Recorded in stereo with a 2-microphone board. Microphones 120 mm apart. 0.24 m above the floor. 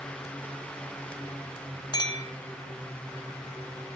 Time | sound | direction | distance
1.9 | a clink | 35° left (ahead or behind) | 0.8 m